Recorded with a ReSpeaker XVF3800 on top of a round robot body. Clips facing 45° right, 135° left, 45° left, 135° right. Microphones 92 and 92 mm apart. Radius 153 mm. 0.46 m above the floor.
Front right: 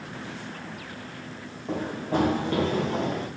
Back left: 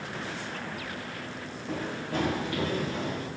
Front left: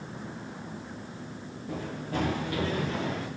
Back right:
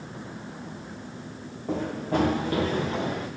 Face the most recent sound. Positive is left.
turn(degrees=-60)